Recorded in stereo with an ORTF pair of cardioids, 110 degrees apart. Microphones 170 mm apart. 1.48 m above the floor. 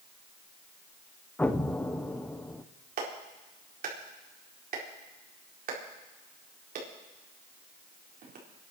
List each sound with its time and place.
1.4 s an explosion: 10° left, 1.0 m
3.0 s a clap: 55° right, 4 m